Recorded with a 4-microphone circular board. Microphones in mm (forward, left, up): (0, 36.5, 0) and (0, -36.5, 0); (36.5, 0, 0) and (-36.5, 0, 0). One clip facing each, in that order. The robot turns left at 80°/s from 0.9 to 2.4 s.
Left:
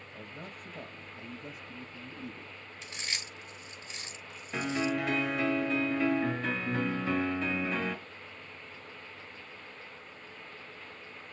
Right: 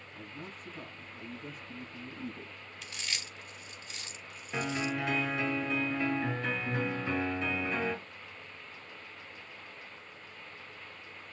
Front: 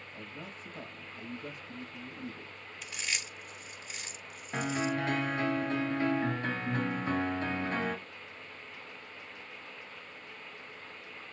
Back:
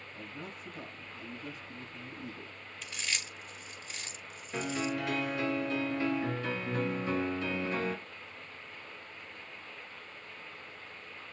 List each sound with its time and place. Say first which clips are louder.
0.1 s a man speaking: even, back 1 dB; 60° left, 3 m; by 2.6 s 60° right, 3 m
2.8 s chewing: left 1 dB, even; 75° left, 1.2 m
4.5 s a piano: left 2 dB, front 2 dB; 5° right, 1.2 m